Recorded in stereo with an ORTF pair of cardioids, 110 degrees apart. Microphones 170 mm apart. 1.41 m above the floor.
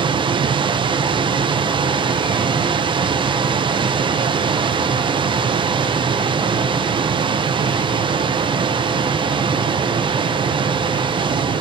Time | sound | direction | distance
0.0 | a machine running | 30° right | 0.8 m